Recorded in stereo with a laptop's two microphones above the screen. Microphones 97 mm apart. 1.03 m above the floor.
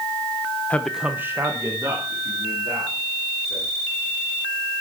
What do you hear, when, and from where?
0.7 s a man speaking: 15° left (ahead or behind), 0.6 m; by 3.6 s 35° right (ahead or behind), 4.5 m